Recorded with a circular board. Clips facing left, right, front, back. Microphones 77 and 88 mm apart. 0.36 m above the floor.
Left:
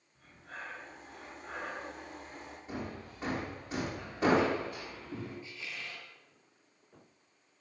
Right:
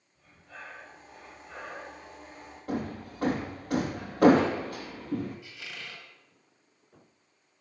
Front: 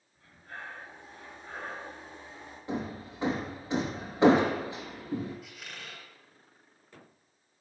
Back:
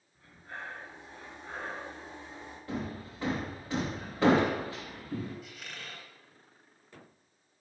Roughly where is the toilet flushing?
No toilet flushing in this recording.